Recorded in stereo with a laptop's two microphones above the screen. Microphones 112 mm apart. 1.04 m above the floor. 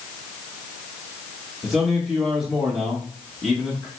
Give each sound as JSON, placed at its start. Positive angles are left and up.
{"t": 1.6, "sound": "a man speaking", "side_deg": 0, "distance_m": 1.1}